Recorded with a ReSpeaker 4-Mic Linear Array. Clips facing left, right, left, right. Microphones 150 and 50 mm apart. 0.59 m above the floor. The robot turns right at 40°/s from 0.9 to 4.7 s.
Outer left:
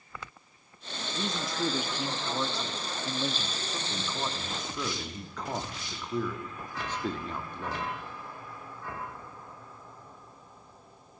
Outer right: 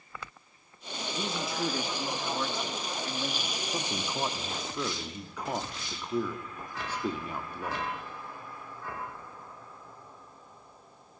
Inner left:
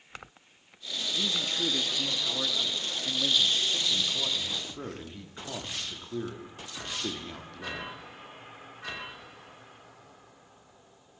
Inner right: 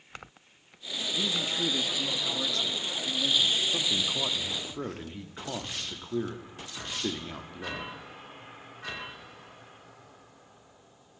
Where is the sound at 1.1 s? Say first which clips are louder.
Outer left 1 dB, inner right 1 dB; 10° right (ahead or behind), 0.8 m; by 3.6 s 20° left (ahead or behind), 0.8 m.